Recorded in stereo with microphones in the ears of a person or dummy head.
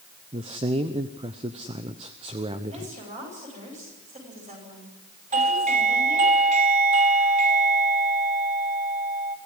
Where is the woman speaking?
30° right (ahead or behind), 9.5 m.